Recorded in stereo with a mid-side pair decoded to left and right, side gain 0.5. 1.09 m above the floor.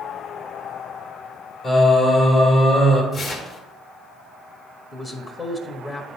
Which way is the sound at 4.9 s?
30° left.